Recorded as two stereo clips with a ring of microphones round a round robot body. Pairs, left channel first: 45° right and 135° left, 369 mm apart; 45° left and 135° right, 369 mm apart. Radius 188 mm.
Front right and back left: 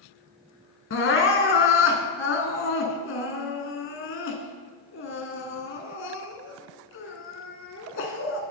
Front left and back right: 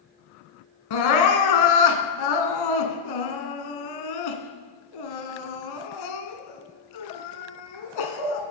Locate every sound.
0.9 s crying: 15° left, 0.9 m